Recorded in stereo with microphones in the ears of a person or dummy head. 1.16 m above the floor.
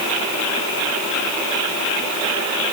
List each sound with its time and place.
Only background noise.